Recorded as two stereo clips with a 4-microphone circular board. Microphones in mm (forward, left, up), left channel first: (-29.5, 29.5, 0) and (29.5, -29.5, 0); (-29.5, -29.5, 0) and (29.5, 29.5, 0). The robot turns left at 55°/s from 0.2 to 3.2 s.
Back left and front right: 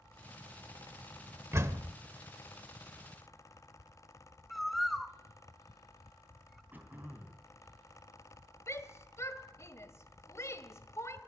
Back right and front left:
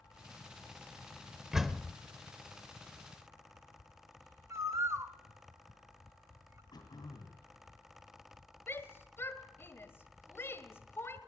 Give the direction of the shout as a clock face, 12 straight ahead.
6 o'clock.